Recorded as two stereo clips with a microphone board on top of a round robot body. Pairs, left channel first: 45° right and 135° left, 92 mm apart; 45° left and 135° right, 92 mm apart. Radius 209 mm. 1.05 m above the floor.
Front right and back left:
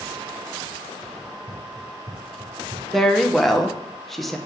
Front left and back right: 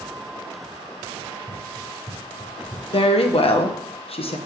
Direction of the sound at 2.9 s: 45° left.